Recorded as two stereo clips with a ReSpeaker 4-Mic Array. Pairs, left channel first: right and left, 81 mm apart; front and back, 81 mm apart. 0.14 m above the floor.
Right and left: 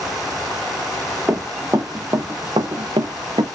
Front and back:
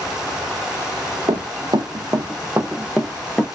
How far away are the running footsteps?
About 1.0 m.